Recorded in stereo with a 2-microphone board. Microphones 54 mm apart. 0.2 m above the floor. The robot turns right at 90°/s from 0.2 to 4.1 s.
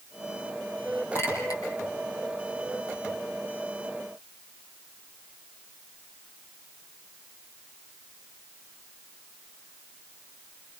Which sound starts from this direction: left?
A clink, at 1.1 s.